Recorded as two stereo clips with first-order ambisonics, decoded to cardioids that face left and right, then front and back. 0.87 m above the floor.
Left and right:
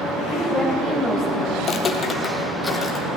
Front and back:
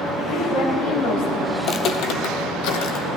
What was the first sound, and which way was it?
A woman speaking, 25° right.